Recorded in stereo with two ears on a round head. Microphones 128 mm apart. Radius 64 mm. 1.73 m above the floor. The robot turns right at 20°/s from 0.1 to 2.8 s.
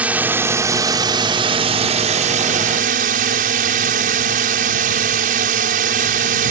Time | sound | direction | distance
0.0 | a drone | 170° right | ?